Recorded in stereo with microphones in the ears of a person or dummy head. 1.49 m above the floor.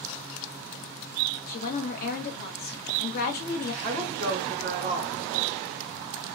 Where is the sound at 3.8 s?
40° right (ahead or behind), 1.1 m.